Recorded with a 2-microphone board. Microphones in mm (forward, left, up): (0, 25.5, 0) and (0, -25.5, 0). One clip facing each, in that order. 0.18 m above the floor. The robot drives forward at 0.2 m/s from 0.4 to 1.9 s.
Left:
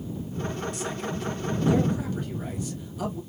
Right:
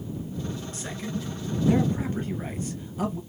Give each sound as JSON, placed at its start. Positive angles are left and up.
{"t": 0.7, "sound": "a man speaking", "side_deg": -35, "distance_m": 1.5}